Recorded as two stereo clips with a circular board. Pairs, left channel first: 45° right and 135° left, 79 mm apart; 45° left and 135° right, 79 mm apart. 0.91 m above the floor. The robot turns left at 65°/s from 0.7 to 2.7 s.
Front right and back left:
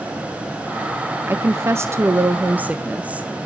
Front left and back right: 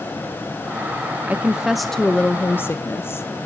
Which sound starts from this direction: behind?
A woman speaking, at 1.3 s.